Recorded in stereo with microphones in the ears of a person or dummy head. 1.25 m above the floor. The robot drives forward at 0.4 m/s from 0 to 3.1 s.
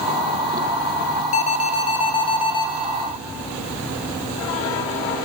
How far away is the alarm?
About 1.1 m.